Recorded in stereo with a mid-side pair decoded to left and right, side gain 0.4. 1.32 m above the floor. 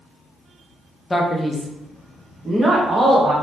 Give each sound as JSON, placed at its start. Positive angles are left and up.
{"t": 1.1, "sound": "a man speaking", "azimuth_deg": 25, "distance_m": 0.7}